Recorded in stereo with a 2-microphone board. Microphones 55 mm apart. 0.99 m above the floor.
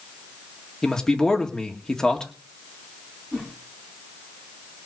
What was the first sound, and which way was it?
A man speaking, 15° left (ahead or behind).